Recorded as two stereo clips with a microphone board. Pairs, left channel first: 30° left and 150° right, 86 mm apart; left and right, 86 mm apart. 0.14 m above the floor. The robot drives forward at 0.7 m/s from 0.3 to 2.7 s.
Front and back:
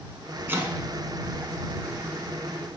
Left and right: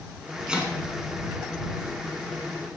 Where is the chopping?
160° right, 0.9 m; by 2.7 s 175° right, 2 m.